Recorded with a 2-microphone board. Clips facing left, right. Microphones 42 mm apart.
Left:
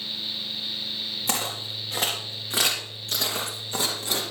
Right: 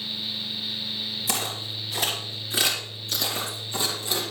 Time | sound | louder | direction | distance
1.3 | footsteps | left 2 dB | 60° left (ahead or behind) | 5 m